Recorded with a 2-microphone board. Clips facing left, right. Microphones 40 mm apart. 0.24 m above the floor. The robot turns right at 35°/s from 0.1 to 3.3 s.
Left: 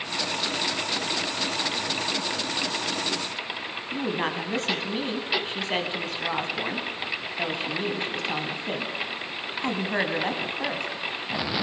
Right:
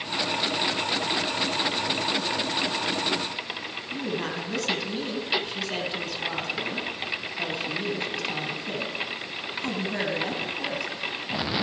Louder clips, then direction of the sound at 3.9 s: Left 3 dB; 35° left (ahead or behind).